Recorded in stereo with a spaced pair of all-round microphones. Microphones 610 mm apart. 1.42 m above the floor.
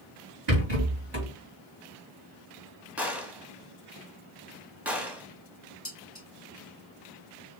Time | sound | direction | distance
0.5 | a rattle | 40° right (ahead or behind) | 3 m
3.0 | a gunshot | centre (ahead or behind) | 1.2 m
5.8 | dishes clattering | 20° left (ahead or behind) | 1.5 m